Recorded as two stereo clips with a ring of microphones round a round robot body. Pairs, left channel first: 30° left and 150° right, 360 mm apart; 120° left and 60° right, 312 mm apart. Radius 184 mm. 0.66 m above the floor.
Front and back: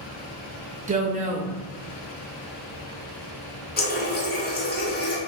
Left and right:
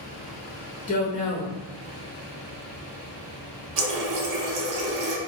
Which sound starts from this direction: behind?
A woman speaking, at 0.9 s.